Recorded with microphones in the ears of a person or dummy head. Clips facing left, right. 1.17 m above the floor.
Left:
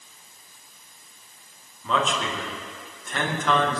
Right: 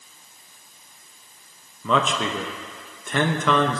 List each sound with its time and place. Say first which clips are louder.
1.8 s a man speaking: right 3 dB; 55° right (ahead or behind), 1.2 m